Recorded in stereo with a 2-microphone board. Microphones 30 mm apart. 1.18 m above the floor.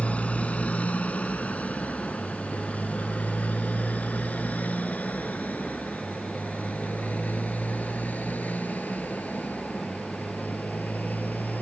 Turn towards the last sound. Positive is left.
turn(degrees=75)  # may be behind; listen again after turning